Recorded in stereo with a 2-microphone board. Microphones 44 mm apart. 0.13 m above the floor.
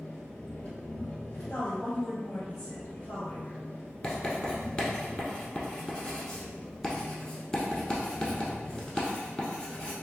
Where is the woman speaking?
45° left (ahead or behind), 1.9 m.